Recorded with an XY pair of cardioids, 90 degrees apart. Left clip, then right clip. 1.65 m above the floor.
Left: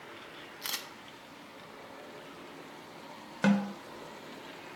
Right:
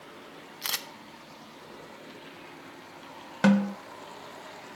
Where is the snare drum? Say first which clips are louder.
Right 5 dB; 25° right, 1.1 m.